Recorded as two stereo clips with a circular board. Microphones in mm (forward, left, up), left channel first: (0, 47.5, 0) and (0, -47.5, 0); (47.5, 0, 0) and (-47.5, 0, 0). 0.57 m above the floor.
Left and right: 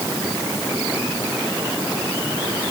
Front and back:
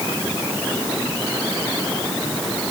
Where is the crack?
No crack in this recording.